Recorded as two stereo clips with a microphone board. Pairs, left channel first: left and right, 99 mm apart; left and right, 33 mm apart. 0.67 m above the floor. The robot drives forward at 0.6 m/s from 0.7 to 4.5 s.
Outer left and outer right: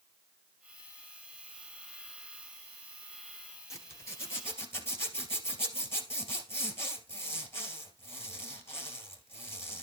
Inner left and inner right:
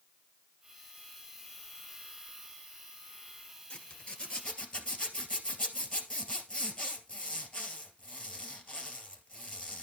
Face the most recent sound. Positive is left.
turn(degrees=25)  # may be behind; listen again after turning